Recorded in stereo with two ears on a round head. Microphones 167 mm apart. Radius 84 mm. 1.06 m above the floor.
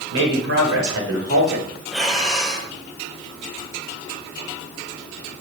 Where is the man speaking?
80° right, 5 m; by 1.7 s 75° right (ahead or behind), 4.5 m.